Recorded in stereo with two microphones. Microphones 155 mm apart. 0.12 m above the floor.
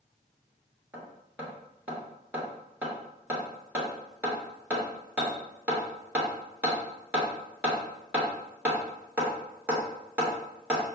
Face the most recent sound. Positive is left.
turn(degrees=-10)  # may be behind; listen again after turning